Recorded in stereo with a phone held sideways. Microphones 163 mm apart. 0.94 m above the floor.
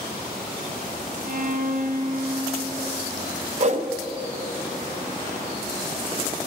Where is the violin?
60° right (ahead or behind), 0.6 m.